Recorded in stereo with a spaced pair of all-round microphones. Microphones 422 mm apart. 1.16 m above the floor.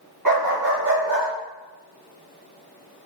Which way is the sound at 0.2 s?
65° right (ahead or behind).